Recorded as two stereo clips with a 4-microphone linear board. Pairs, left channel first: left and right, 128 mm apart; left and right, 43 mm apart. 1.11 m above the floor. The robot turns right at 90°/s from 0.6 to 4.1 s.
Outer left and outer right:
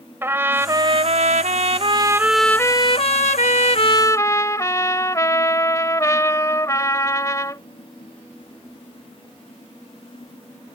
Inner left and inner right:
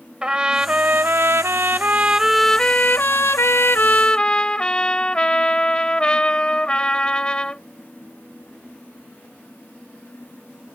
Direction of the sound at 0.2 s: 160° right.